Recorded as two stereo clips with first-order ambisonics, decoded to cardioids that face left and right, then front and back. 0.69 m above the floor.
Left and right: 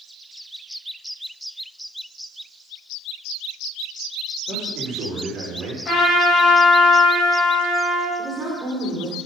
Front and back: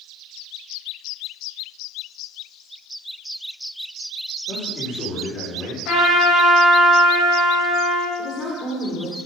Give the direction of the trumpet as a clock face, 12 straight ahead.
11 o'clock.